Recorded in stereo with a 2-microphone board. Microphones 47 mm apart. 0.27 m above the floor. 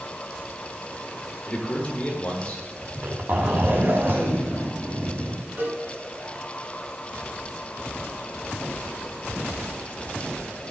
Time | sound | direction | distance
1.5 | a man speaking | 30° left (ahead or behind) | 3.5 m
2.8 | a zipper | 55° right (ahead or behind) | 2 m
5.6 | a cowbell | 45° right (ahead or behind) | 4 m